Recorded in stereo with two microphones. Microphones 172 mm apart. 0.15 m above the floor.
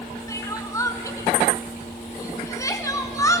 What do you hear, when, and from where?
0.3 s crying: 20° left (ahead or behind), 1.7 m